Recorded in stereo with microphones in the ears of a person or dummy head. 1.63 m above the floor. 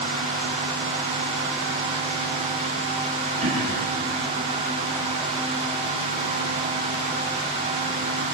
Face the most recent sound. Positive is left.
turn(degrees=-50)  # may be behind; listen again after turning